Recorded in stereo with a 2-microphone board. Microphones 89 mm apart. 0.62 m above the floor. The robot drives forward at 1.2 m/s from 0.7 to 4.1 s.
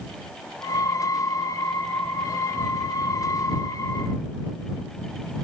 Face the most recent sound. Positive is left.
No sound to turn to.